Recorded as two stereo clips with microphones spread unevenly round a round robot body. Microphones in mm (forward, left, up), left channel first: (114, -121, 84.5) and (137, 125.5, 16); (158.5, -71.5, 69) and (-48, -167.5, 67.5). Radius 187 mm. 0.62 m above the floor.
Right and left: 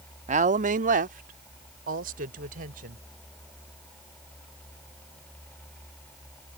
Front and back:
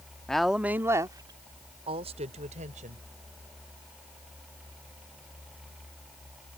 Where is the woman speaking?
110° left; by 3.0 s 140° left.